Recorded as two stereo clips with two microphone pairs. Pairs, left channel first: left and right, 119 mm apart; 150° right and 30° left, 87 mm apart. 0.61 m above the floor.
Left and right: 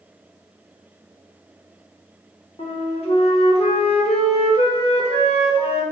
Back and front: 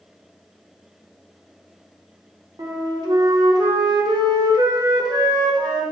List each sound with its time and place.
2.6 s a flute: 65° left, 0.8 m